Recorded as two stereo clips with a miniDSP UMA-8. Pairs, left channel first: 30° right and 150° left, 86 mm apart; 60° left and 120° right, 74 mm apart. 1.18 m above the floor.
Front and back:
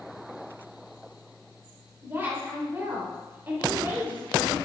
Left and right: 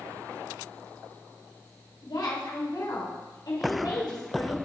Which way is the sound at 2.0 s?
85° left.